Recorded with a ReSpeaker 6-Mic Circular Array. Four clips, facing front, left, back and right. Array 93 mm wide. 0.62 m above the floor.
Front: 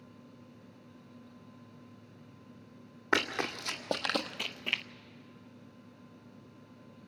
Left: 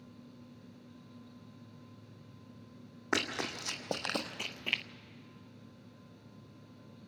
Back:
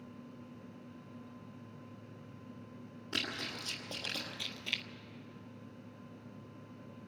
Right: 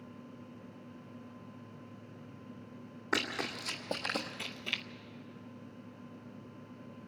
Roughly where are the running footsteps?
Ahead.